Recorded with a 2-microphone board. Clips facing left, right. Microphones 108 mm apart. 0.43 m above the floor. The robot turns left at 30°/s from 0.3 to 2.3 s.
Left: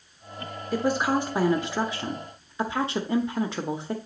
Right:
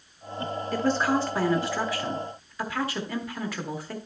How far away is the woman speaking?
About 0.9 m.